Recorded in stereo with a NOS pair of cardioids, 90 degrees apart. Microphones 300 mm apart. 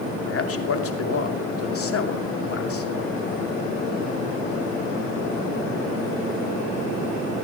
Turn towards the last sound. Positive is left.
turn(degrees=45)